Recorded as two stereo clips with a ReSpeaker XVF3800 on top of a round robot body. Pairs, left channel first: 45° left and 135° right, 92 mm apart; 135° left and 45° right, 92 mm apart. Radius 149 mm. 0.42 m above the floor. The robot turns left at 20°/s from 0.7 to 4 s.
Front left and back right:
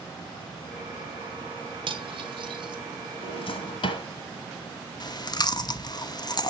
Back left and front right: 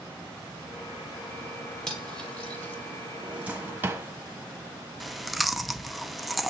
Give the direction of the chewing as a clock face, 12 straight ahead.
11 o'clock.